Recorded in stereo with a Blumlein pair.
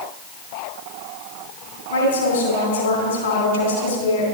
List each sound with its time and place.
1.9 s a woman speaking: 65° left, 3 m